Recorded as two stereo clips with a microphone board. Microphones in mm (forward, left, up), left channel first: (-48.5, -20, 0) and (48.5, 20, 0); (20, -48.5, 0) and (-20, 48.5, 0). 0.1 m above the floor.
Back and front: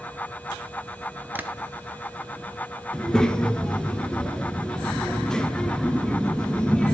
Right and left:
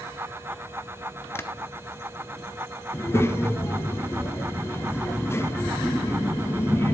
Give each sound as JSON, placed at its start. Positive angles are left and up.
{"t": 1.4, "sound": "tapping", "azimuth_deg": -30, "distance_m": 0.7}
{"t": 2.9, "sound": "a child speaking", "azimuth_deg": -85, "distance_m": 0.8}